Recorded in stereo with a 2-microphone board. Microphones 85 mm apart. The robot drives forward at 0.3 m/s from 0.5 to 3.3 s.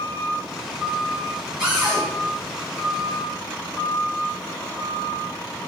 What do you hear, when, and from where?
1.6 s a cupboard door: 10° right (ahead or behind), 1.8 m